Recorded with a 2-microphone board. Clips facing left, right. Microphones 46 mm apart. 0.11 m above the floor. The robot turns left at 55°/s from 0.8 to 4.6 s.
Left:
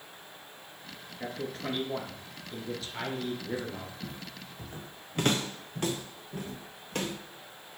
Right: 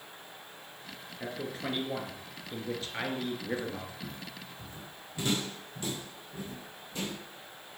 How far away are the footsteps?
About 0.9 m.